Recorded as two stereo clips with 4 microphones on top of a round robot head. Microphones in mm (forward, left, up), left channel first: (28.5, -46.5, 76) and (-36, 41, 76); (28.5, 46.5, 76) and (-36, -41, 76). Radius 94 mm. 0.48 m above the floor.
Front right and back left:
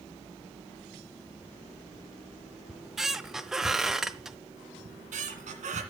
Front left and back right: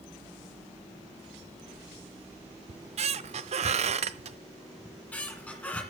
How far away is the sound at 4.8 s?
About 1.9 m.